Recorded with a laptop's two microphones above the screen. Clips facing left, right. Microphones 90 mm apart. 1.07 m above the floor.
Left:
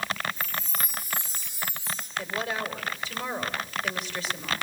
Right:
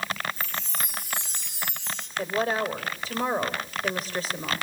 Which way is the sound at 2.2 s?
40° right (ahead or behind).